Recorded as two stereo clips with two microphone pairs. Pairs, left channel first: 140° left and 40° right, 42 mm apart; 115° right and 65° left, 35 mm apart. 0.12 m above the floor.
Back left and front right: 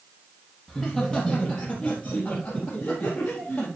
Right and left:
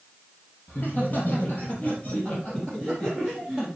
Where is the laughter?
145° right, 3.5 m; by 3.7 s 175° left, 4 m.